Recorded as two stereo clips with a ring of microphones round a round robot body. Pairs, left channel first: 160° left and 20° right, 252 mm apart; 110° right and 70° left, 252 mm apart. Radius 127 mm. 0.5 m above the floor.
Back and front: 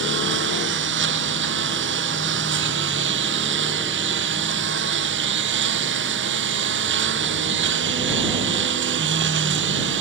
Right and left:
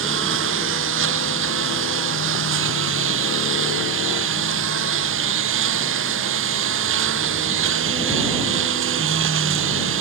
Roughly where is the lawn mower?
Ahead left.